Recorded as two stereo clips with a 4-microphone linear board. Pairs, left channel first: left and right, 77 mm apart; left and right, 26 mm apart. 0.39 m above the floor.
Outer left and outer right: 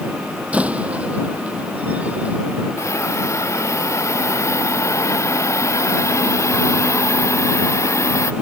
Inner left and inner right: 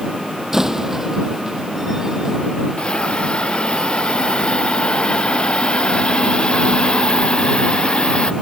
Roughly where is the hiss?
Left.